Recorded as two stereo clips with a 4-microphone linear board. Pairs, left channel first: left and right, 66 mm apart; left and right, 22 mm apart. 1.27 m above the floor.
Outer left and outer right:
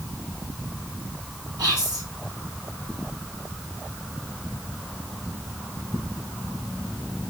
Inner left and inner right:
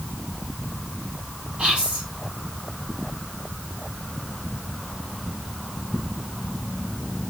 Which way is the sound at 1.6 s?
75° right (ahead or behind).